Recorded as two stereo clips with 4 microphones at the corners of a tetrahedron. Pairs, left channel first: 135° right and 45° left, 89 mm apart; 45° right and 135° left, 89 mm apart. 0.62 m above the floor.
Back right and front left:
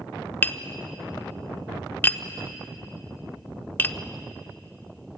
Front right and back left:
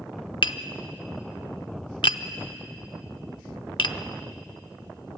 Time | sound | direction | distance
0.4 | tapping | 70° right | 0.6 m